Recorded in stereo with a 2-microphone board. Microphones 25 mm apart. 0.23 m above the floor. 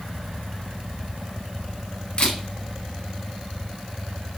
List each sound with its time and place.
2.2 s a camera shutter: 50° left (ahead or behind), 1.1 m